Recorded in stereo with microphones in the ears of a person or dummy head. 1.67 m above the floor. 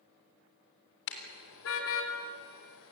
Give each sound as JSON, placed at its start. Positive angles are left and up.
{"t": 1.1, "sound": "a car horn", "side_deg": 65, "distance_m": 3.5}